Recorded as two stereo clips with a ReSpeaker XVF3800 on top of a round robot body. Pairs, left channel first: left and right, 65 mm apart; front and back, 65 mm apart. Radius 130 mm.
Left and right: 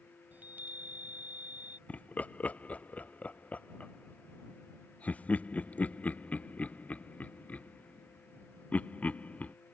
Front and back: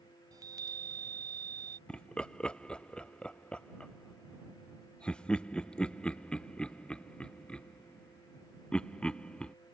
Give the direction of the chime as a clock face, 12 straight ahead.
5 o'clock.